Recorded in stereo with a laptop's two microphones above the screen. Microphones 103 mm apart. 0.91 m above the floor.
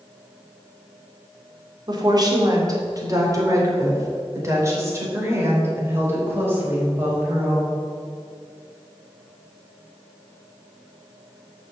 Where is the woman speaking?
45° right (ahead or behind), 2.5 m; by 7.8 s 20° right (ahead or behind), 5 m.